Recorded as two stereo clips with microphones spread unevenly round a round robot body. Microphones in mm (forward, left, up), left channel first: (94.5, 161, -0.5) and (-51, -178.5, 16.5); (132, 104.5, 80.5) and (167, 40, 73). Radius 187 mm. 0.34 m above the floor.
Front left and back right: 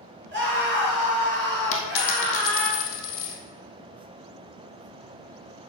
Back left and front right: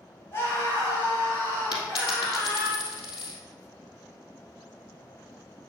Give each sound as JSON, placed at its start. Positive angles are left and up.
{"t": 0.3, "sound": "a scream", "azimuth_deg": -175, "distance_m": 5.0}
{"t": 1.7, "sound": "a dropped coin", "azimuth_deg": 125, "distance_m": 1.8}